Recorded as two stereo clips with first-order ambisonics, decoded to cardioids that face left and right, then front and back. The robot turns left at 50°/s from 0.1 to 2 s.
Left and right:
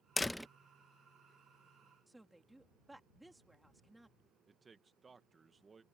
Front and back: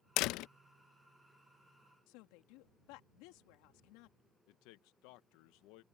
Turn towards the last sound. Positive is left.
turn(degrees=-15)